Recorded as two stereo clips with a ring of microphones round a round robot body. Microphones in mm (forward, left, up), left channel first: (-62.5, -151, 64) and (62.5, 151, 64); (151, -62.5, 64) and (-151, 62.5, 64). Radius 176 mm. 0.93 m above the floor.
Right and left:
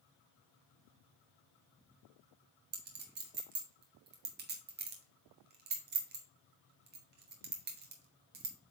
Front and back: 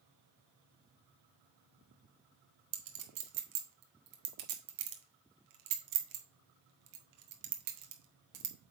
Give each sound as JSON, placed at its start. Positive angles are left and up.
{"t": 2.7, "sound": "a clink", "azimuth_deg": 130, "distance_m": 1.4}